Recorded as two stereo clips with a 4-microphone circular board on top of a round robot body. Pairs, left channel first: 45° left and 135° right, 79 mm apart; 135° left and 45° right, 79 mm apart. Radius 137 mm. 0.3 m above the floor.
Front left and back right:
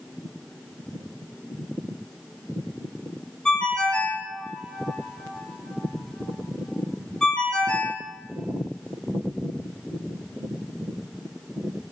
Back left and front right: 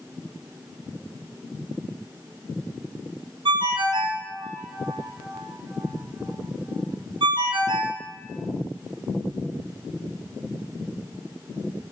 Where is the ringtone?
35° right, 0.6 m.